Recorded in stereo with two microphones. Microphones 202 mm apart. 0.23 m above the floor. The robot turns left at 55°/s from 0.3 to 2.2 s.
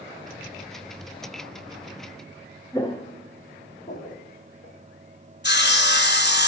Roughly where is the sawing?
Left.